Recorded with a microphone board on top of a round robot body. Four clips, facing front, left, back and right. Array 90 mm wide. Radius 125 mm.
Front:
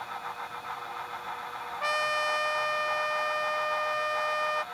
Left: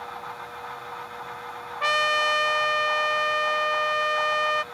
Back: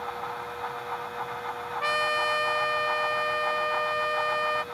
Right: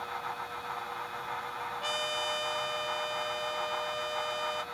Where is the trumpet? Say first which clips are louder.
Left 14 dB, back 2 dB; 95° left.